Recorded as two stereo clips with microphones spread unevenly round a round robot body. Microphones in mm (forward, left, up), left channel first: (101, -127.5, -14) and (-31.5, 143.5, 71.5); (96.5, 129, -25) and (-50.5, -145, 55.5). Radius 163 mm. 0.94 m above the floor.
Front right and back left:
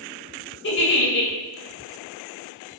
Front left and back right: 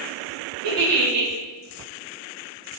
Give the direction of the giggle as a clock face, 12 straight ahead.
4 o'clock.